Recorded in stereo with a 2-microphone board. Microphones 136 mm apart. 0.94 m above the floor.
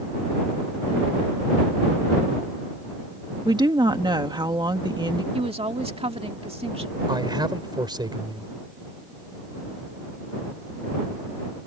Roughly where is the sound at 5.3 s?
Right.